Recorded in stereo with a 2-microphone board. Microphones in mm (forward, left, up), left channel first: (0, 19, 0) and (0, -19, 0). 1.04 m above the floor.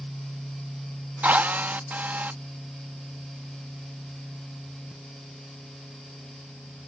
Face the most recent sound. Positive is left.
turn(degrees=-60)  # may be behind; listen again after turning